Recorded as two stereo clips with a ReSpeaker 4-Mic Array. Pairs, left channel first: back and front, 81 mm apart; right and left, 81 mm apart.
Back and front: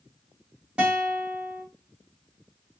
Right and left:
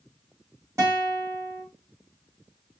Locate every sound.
0.8 s a guitar: 70° left, 1.7 m